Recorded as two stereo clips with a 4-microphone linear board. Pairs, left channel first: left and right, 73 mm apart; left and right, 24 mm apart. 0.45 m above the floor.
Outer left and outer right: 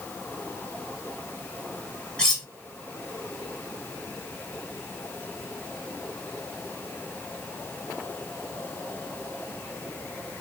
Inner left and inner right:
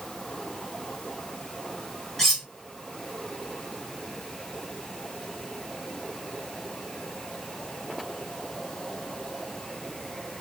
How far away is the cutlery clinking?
About 1.9 m.